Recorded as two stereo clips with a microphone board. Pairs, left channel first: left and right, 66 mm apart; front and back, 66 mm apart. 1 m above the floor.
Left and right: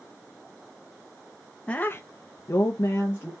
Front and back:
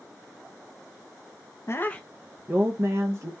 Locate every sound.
1.7 s a woman speaking: 20° left, 0.6 m; by 3.3 s 145° left, 1.4 m